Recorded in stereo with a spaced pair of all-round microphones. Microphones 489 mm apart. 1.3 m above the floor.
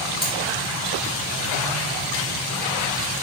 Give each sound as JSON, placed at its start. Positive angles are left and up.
{"t": 0.2, "sound": "cutlery clinking", "side_deg": -35, "distance_m": 9.0}